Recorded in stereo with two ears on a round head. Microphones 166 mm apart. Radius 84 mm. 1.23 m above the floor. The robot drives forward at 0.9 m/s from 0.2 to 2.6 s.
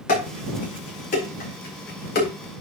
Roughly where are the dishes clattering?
Left.